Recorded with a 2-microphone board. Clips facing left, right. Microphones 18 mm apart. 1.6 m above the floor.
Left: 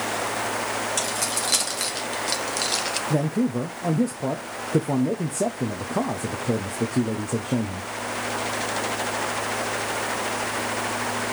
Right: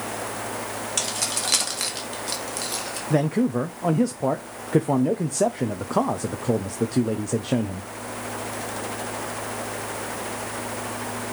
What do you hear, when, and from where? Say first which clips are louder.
1.0 s keys jangling: left 1 dB; 20° right (ahead or behind), 2.5 m; by 3.0 s 45° left (ahead or behind), 1.3 m
3.1 s a man speaking: right 4 dB; 50° right (ahead or behind), 0.6 m